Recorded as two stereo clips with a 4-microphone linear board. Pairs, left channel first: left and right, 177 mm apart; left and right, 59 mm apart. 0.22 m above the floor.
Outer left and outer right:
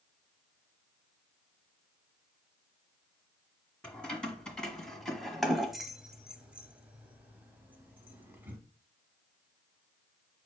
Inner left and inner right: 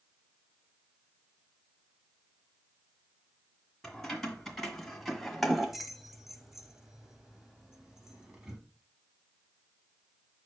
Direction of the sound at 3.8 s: 5° left (ahead or behind).